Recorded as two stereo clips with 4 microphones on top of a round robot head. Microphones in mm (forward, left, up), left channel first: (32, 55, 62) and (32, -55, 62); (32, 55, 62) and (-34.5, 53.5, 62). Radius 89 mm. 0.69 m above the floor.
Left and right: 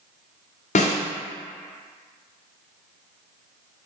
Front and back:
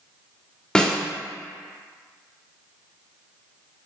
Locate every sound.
0.8 s a snare drum: 80° left, 0.8 m